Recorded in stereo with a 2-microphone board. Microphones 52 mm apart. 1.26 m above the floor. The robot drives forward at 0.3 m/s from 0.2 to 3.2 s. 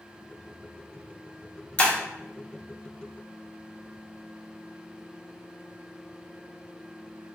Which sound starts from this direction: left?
Breaking glass, at 1.8 s.